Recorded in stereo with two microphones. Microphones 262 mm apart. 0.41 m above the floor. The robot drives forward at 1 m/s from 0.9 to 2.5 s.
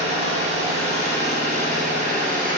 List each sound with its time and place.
0.0 s an engine running: 25° right (ahead or behind), 6.5 m; by 2.6 s 30° right (ahead or behind), 5 m